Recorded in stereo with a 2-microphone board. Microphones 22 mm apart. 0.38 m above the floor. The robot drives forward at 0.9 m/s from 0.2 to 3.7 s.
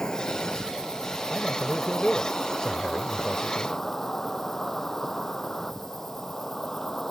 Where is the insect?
35° left (ahead or behind); by 7.1 s 20° left (ahead or behind).